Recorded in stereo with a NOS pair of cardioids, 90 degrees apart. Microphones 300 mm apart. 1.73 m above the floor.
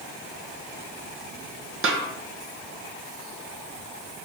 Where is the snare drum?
45° right, 1.7 m.